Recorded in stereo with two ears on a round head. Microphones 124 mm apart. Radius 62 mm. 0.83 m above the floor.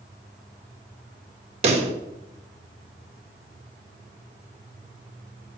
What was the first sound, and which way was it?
A pop, 50° right (ahead or behind).